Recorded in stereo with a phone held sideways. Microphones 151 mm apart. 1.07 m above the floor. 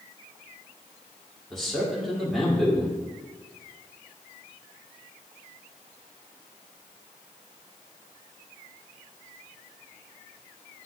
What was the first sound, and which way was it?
A man speaking, centre (ahead or behind).